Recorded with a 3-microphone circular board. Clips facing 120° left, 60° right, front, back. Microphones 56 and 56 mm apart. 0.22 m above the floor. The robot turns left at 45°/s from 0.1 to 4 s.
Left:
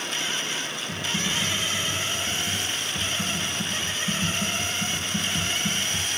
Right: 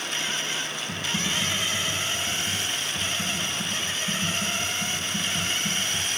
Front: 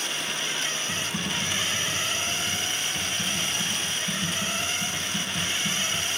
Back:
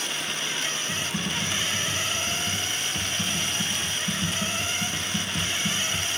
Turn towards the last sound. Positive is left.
turn(degrees=160)